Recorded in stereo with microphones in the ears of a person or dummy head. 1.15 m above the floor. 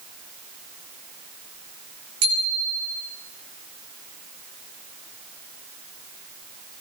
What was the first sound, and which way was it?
A bicycle bell, 90° right.